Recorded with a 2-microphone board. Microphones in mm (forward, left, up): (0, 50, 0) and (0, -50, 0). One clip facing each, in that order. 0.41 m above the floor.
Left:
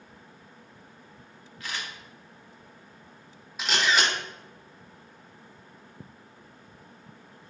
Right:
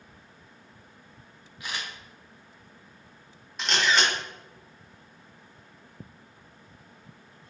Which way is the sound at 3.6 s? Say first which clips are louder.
Even; 5° left (ahead or behind).